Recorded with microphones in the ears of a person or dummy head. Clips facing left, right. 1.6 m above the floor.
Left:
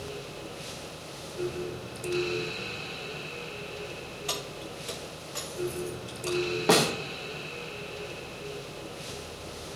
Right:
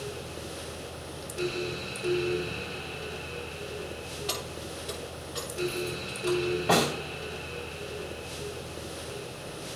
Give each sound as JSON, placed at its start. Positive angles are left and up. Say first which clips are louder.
{"t": 4.3, "sound": "keys jangling", "louder": "right 1 dB", "side_deg": 30, "distance_m": 1.5}
{"t": 6.7, "sound": "a snare drum", "louder": "left 3 dB", "side_deg": 55, "distance_m": 1.9}